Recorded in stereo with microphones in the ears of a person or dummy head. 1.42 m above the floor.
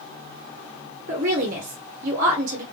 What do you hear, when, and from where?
1.1 s a woman speaking: 50° right (ahead or behind), 0.9 m